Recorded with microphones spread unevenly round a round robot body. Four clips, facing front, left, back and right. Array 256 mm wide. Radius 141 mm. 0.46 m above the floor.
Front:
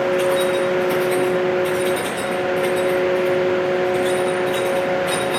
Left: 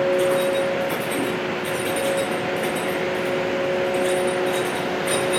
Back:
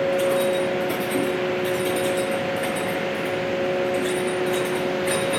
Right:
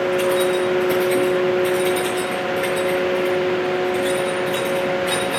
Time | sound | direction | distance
0.1 | keys jangling | 155° right | 5 m